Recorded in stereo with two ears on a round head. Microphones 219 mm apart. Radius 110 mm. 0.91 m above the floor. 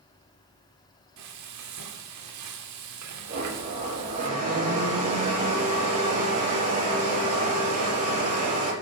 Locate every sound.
1.2 s frying: 70° right (ahead or behind), 2 m
3.3 s a blender: 30° right (ahead or behind), 7.5 m